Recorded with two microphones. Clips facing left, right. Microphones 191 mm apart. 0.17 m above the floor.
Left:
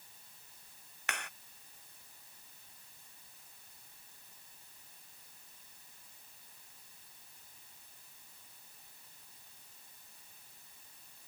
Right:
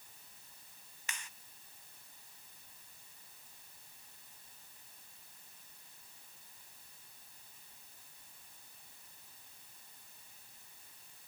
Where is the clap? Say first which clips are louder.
Left 8 dB; 65° left (ahead or behind).